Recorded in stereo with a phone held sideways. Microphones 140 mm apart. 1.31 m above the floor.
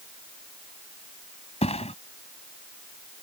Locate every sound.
1.6 s a thud: 50° left (ahead or behind)